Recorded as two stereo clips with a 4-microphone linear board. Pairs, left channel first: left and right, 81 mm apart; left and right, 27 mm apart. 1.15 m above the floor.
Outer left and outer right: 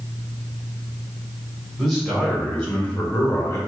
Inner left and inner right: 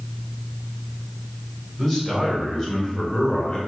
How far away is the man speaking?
About 1.6 m.